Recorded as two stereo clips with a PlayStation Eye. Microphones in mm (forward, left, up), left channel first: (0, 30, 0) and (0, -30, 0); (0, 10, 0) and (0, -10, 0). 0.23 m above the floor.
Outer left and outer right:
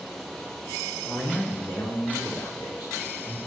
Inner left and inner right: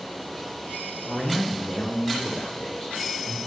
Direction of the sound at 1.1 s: 45° left (ahead or behind).